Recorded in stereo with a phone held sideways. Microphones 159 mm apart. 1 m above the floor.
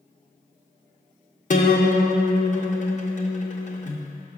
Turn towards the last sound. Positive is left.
turn(degrees=50)  # may be behind; listen again after turning